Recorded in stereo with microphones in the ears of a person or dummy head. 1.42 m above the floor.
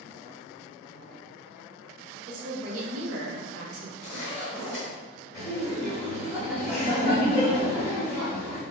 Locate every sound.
2.3 s a woman speaking: 85° right, 0.9 m
4.0 s a zipper: centre (ahead or behind), 1.1 m
5.3 s laughter: centre (ahead or behind), 1.7 m